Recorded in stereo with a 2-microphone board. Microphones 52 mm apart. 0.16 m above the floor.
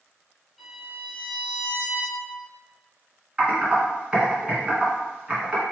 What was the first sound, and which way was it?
A violin, 5° right (ahead or behind).